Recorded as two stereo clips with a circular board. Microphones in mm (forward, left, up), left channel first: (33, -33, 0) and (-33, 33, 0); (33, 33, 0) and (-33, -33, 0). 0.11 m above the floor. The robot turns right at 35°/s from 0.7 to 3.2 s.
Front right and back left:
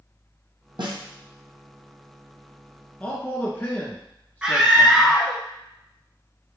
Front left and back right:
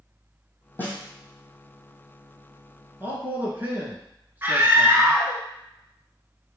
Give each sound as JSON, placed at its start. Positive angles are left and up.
{"t": 0.8, "sound": "a snare drum", "azimuth_deg": 110, "distance_m": 1.6}
{"t": 3.0, "sound": "a man speaking", "azimuth_deg": -100, "distance_m": 1.7}
{"t": 4.4, "sound": "a scream", "azimuth_deg": -155, "distance_m": 1.3}